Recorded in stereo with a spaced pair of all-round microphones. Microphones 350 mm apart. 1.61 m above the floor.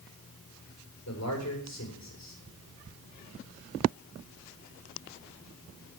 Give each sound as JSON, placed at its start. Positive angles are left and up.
{"t": 1.1, "sound": "a man speaking", "side_deg": 50, "distance_m": 7.0}